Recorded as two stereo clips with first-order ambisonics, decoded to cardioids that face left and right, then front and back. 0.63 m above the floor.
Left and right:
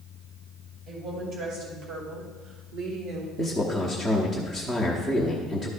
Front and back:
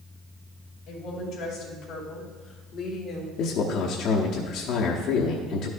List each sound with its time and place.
0.9 s a woman speaking: 45° right, 3 m; by 3.3 s 60° right, 1.8 m
3.4 s a man speaking: 15° right, 1.0 m